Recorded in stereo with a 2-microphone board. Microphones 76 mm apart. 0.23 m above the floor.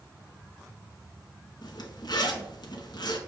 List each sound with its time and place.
1.6 s a zipper: 70° left (ahead or behind), 0.7 m